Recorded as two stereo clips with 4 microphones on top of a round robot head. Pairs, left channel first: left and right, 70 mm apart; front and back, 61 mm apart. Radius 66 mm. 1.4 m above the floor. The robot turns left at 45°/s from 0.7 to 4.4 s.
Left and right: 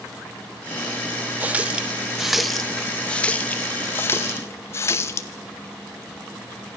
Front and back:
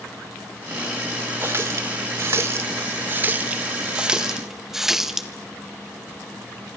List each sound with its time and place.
1.4 s a running tap: 130° right, 0.7 m; by 5.3 s 95° left, 0.7 m